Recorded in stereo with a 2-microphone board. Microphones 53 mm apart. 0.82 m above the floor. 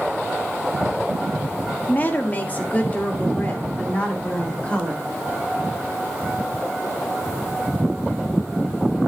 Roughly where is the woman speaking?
Left.